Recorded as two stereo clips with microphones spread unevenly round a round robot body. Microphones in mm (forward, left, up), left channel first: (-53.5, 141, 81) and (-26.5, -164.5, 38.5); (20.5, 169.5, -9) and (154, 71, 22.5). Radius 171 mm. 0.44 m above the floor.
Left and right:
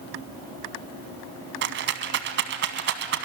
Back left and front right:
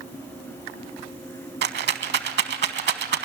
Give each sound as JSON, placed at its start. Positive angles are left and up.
{"t": 1.6, "sound": "a rattle", "azimuth_deg": -25, "distance_m": 1.0}